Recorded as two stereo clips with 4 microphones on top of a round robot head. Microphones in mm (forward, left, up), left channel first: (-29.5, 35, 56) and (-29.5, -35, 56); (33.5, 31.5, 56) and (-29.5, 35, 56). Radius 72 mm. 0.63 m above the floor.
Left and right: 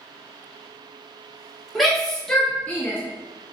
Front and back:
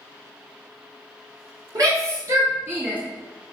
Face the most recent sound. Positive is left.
turn(degrees=125)